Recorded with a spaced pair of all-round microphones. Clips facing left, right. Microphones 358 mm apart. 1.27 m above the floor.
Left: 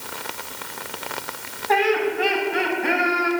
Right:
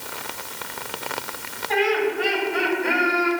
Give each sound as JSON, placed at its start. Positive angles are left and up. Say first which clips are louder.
{"t": 1.7, "sound": "laughter", "louder": "left 1 dB", "side_deg": 80, "distance_m": 5.5}